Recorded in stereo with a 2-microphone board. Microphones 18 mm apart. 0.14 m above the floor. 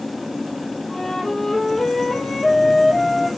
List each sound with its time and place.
0.9 s a flute: 30° left (ahead or behind), 5 m